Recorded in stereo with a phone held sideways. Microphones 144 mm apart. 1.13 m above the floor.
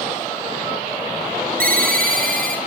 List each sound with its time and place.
1.6 s a ringtone: 70° right (ahead or behind), 1.1 m